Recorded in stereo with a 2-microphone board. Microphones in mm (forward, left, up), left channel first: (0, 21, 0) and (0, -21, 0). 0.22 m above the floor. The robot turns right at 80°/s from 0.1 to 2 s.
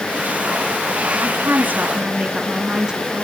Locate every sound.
1.2 s a woman speaking: 90° right, 2.0 m; by 3.2 s 25° right, 2.0 m